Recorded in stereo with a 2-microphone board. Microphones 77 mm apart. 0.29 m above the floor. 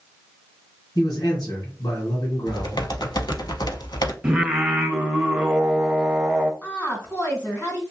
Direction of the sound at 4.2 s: 10° right (ahead or behind).